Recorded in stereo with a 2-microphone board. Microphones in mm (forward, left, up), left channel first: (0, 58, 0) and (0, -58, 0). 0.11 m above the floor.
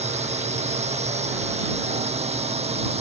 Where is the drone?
70° right (ahead or behind); by 3.0 s 65° right (ahead or behind).